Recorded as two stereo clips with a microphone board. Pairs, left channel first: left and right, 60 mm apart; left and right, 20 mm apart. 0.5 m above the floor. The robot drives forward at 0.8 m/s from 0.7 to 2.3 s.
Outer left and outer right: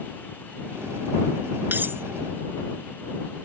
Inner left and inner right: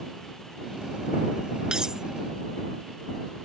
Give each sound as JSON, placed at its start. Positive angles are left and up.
{"t": 1.7, "sound": "cutlery clinking", "side_deg": -35}